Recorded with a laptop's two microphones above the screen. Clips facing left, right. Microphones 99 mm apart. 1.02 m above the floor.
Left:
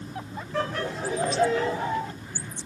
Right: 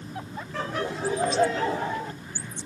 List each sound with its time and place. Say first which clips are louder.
0.5 s laughter: left 1 dB; 5° left (ahead or behind), 0.8 m; by 2.1 s 45° right (ahead or behind), 1.4 m